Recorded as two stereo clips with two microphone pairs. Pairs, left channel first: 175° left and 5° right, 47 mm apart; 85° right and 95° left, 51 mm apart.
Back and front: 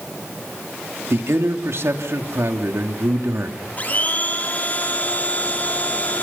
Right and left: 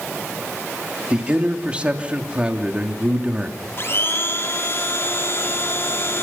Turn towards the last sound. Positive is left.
turn(degrees=-125)